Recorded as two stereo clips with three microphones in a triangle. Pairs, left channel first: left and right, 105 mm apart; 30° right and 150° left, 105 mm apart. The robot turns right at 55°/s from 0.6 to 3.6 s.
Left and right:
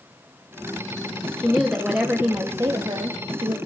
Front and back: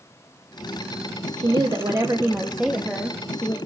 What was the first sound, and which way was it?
A woman speaking, 160° left.